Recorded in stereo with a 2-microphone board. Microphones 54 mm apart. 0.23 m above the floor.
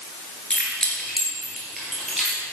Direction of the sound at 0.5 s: 20° left (ahead or behind).